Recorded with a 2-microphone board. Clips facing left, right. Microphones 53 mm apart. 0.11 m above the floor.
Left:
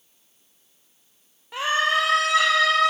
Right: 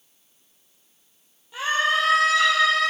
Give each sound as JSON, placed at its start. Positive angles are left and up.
{"t": 1.5, "sound": "a scream", "side_deg": 65, "distance_m": 3.0}